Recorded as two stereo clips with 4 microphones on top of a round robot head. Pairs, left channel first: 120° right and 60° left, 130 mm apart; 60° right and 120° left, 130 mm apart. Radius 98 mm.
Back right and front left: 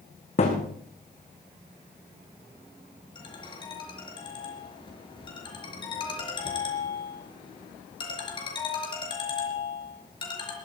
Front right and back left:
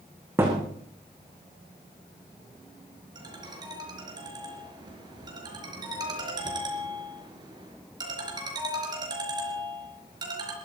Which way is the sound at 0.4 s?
165° right.